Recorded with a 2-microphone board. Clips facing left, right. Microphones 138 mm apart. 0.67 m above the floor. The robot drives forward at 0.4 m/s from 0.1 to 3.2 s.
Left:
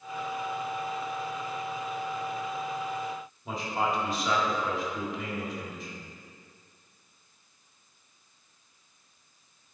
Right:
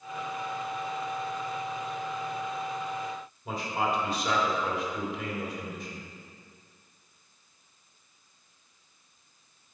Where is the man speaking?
Centre (ahead or behind), 1.8 m.